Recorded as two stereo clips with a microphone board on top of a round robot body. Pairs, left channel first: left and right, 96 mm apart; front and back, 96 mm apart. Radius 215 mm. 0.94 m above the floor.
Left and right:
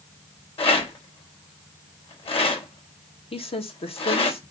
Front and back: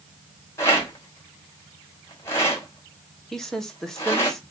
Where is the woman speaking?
85° left, 2.0 m.